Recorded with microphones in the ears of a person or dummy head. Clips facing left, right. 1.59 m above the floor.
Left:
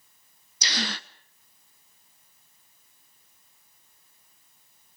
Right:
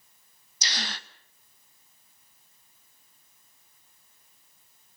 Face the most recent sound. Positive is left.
turn(degrees=65)  # may be behind; listen again after turning